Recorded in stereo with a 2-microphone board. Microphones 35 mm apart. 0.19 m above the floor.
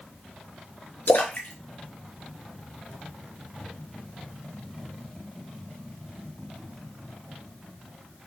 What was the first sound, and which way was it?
A splash, 60° left (ahead or behind).